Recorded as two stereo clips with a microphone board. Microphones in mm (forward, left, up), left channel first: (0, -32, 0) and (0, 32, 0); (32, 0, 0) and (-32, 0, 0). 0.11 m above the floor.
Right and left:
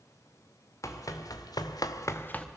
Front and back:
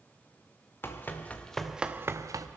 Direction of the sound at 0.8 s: 55° right.